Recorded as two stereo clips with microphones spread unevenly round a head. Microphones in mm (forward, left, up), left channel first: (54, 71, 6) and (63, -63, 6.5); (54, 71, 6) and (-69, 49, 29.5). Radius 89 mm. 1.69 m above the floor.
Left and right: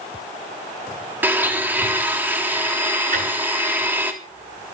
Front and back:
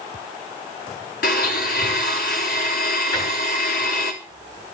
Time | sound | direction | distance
1.2 | a blender | 10° right | 3.5 m
3.1 | a drawer | 60° right | 6.5 m